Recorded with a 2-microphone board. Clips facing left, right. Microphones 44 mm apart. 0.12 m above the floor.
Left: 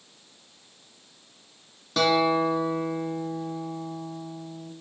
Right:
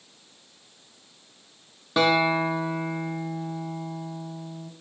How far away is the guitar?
About 1.0 m.